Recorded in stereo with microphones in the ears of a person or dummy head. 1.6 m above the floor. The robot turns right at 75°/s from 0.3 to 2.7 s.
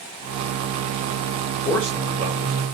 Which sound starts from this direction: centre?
A man speaking, at 1.6 s.